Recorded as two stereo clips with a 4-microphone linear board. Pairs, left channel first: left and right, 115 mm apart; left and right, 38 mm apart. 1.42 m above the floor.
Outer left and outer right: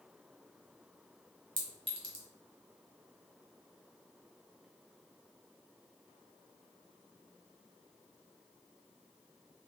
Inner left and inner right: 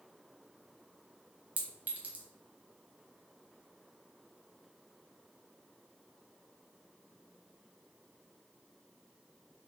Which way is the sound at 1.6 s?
45° right (ahead or behind).